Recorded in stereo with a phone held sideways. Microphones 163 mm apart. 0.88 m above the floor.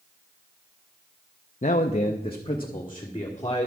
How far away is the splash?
No splash in this recording.